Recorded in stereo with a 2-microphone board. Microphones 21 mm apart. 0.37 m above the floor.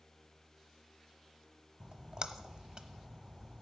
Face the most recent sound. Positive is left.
turn(degrees=-40)  # may be behind; listen again after turning